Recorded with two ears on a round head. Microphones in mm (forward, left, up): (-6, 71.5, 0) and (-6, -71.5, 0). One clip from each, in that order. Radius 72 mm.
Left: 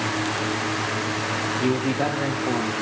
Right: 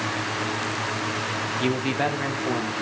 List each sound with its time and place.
1.6 s a man speaking: 65° right (ahead or behind), 1.0 m; by 2.7 s 45° right (ahead or behind), 1.3 m